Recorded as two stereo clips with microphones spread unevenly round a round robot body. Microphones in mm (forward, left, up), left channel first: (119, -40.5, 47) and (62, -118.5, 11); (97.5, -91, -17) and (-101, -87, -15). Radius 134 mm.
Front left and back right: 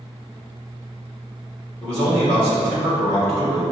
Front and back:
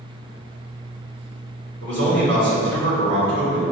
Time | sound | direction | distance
1.8 | a man speaking | 140° left | 1.6 m